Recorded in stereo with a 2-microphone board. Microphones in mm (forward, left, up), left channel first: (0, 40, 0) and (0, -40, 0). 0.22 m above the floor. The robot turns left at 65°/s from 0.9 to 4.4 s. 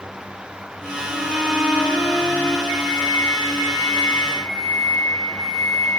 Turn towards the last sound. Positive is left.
turn(degrees=-50)